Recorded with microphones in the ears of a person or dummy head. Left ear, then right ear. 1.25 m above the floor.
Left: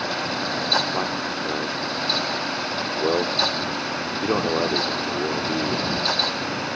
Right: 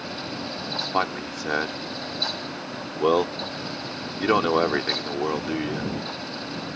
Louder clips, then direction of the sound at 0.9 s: Left 1 dB; 55° right (ahead or behind).